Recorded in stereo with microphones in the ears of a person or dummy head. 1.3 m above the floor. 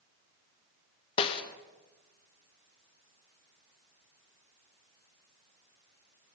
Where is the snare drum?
30° left (ahead or behind), 0.6 m.